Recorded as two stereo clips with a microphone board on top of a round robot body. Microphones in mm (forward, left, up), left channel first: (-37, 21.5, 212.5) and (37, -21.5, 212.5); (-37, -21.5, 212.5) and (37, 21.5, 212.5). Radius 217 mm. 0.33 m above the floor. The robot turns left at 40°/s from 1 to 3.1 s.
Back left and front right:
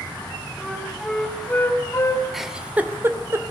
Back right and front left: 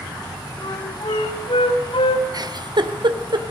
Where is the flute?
115° right, 3 m; by 2.2 s 165° right, 3 m.